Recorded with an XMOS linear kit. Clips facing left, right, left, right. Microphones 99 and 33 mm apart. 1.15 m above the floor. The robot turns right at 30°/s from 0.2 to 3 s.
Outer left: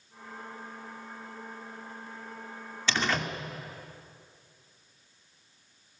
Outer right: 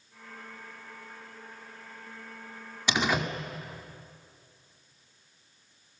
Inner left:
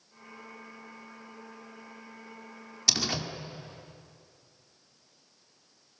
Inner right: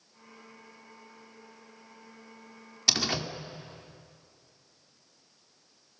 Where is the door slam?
15° right (ahead or behind), 2 m; by 3.3 s 10° right (ahead or behind), 2 m.